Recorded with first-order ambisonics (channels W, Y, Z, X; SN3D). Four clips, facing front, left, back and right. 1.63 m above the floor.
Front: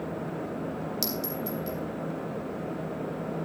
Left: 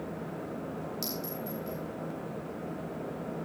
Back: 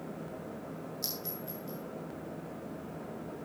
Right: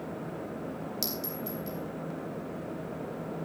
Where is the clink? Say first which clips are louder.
Right 1 dB, front 8 dB; 20° right, 4 m.